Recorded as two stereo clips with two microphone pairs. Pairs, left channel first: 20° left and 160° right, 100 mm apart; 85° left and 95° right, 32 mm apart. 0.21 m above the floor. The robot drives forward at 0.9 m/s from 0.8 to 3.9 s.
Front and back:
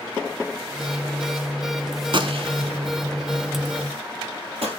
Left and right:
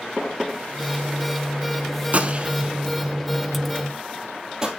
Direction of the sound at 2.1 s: 125° right.